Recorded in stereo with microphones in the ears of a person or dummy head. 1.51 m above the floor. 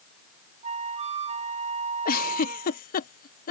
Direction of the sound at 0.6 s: 40° right (ahead or behind).